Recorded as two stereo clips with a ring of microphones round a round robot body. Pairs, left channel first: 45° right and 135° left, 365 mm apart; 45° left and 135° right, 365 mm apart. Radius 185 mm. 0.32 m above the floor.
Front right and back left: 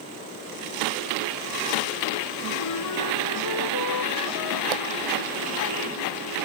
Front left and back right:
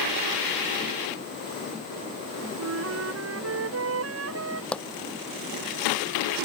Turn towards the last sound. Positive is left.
turn(degrees=130)